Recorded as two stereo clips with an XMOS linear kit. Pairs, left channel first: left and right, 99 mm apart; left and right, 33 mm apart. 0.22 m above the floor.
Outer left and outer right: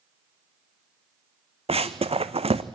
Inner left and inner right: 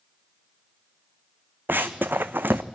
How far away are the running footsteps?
About 1.0 m.